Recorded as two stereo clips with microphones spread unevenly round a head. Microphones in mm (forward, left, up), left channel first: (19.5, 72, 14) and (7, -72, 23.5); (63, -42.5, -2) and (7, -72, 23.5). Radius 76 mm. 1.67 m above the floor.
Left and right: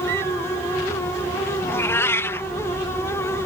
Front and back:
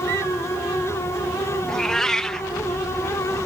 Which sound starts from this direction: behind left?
A cat meowing, at 1.7 s.